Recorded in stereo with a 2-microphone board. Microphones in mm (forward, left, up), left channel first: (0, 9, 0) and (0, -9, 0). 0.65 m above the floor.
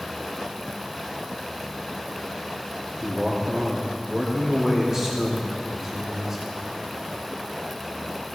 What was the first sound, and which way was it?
A man speaking, 25° right (ahead or behind).